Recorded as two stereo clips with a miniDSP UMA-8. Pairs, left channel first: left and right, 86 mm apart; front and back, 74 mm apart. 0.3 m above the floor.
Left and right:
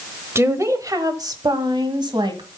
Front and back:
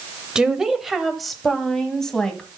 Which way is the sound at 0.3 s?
110° right.